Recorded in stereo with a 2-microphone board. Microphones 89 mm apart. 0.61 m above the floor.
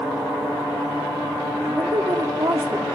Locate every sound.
1.6 s a woman speaking: 45° right (ahead or behind), 1.0 m